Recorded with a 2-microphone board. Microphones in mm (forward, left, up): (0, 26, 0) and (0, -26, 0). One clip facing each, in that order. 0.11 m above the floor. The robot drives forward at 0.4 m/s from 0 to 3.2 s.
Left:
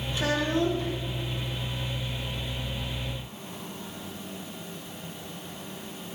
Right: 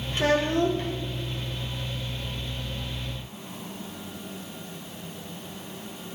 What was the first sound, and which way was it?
A child speaking, 50° right (ahead or behind).